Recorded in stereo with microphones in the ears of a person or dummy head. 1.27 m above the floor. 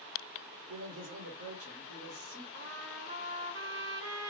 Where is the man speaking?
65° right (ahead or behind), 1.6 m.